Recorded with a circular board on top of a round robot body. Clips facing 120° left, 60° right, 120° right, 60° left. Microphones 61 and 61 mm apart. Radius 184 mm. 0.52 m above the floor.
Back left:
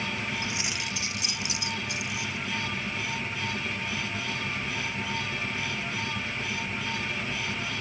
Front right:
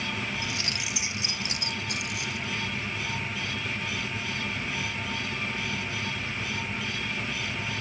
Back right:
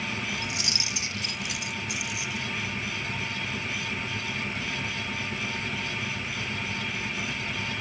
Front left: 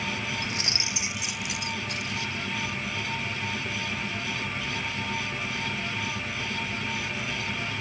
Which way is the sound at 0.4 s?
75° left.